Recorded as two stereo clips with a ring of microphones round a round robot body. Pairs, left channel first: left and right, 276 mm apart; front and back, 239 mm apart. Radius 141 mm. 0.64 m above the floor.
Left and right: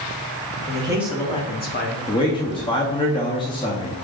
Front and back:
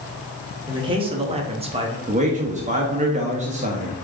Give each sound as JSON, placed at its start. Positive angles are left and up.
{"t": 0.7, "sound": "a man speaking", "azimuth_deg": -125, "distance_m": 0.9}
{"t": 2.1, "sound": "a man speaking", "azimuth_deg": 150, "distance_m": 0.7}